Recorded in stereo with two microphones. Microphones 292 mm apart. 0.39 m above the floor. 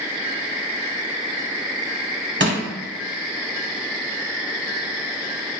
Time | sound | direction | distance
2.4 | crushing | 40° right (ahead or behind) | 0.7 m